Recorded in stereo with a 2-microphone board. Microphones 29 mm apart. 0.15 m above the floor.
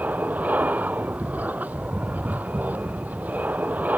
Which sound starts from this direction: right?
An aircraft, at 0.0 s.